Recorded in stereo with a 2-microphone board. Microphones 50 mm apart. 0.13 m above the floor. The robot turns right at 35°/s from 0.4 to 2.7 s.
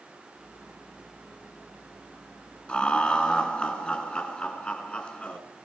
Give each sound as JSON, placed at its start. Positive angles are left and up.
{"t": 2.7, "sound": "laughter", "side_deg": 20, "distance_m": 1.8}